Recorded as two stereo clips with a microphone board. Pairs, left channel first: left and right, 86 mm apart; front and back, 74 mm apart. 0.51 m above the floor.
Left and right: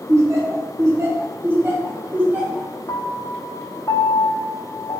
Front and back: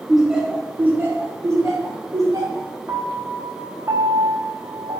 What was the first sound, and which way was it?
Laughter, 90° right.